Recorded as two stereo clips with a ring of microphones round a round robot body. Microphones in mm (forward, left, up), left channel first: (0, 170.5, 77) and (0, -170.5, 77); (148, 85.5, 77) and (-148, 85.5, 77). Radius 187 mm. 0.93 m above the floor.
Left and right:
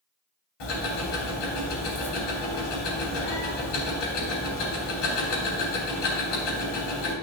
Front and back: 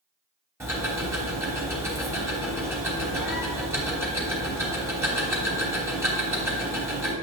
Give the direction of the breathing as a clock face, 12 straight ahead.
I don't hear breathing.